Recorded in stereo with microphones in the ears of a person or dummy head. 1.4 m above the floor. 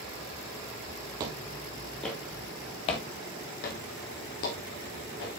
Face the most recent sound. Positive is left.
turn(degrees=70)  # may be behind; listen again after turning